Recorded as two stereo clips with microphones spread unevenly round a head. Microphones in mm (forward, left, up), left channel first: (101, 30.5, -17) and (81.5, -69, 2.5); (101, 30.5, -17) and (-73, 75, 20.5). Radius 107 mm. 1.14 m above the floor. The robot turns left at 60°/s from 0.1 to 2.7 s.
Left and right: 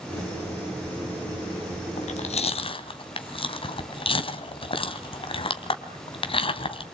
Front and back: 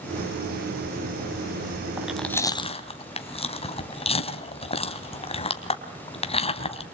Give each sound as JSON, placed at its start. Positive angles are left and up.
{"t": 2.0, "sound": "chewing", "azimuth_deg": 90, "distance_m": 2.5}